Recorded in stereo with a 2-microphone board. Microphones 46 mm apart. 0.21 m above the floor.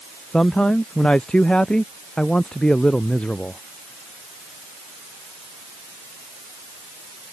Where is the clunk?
No clunk in this recording.